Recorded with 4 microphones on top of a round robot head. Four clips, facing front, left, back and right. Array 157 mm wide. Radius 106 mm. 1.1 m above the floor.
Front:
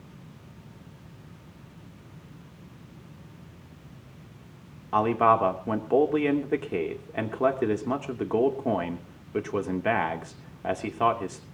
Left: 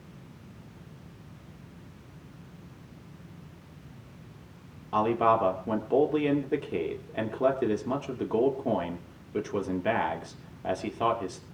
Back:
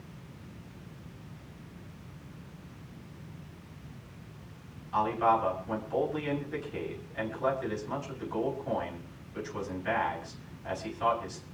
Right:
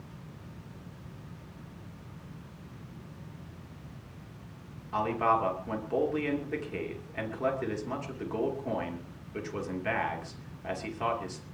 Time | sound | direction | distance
4.9 | a man speaking | 25° left | 3 m